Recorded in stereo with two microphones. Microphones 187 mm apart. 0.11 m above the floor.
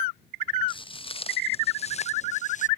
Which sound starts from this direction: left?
Footsteps, at 0.7 s.